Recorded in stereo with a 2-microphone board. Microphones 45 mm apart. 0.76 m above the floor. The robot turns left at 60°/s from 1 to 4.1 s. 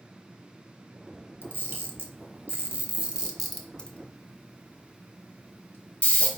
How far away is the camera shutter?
About 1.0 m.